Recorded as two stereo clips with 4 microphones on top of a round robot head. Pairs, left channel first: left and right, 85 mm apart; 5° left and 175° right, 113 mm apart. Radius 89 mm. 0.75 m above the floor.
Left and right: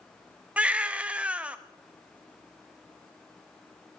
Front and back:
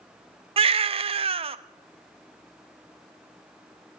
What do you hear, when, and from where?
0.6 s a baby crying: 165° right, 0.6 m